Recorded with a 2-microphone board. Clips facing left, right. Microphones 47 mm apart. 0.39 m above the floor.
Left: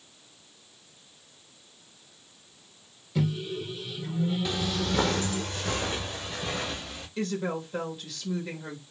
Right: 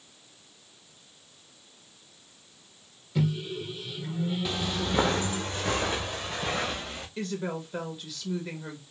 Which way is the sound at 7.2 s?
Centre (ahead or behind).